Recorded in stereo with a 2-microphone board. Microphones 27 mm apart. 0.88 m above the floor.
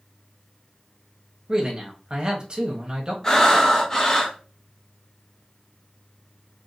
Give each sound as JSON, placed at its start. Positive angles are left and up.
{"t": 1.5, "sound": "a man speaking", "side_deg": -35, "distance_m": 1.0}
{"t": 3.2, "sound": "breathing", "side_deg": 20, "distance_m": 0.8}